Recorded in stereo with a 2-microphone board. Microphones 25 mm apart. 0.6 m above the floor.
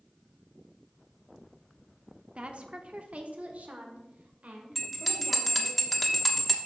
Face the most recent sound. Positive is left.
turn(degrees=-5)  # may be behind; listen again after turning